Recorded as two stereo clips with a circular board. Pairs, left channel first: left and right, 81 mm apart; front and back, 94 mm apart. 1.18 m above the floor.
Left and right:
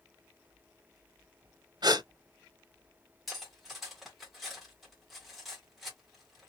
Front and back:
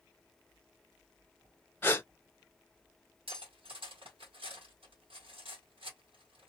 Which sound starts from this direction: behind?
Cutlery clinking, at 3.3 s.